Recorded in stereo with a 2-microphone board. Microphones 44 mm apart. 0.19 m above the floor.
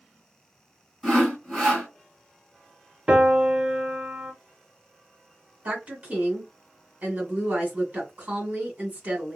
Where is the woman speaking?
30° right (ahead or behind), 1.8 m.